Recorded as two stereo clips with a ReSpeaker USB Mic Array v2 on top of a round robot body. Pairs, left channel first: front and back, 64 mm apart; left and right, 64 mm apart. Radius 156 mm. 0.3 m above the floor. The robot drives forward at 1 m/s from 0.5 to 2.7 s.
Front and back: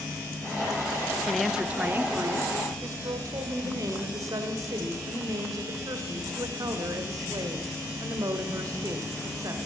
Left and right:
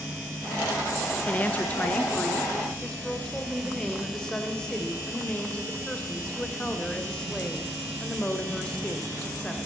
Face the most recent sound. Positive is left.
turn(degrees=165)